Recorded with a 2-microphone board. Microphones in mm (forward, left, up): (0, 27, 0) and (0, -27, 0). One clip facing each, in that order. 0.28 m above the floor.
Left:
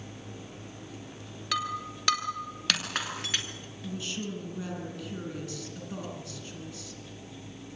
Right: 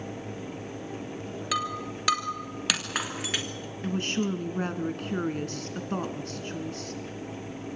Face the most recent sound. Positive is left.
turn(degrees=-45)  # may be behind; listen again after turning